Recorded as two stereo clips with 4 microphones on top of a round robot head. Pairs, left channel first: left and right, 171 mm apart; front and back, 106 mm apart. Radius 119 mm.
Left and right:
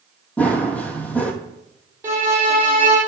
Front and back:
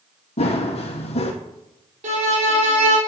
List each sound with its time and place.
0.4 s running footsteps: 10° left, 1.4 m
2.0 s a violin: 165° right, 4 m